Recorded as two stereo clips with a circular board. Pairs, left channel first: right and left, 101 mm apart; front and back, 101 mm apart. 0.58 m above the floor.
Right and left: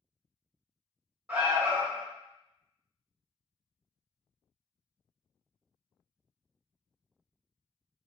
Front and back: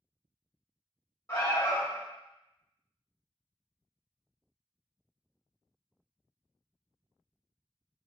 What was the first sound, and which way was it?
An alarm, 35° left.